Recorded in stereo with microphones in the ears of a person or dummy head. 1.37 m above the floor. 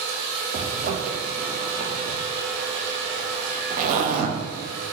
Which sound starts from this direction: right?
A zipper, at 0.5 s.